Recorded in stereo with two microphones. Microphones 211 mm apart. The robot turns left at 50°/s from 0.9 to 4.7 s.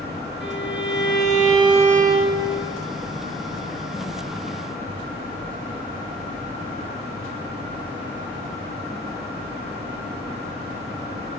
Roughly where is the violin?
Ahead left.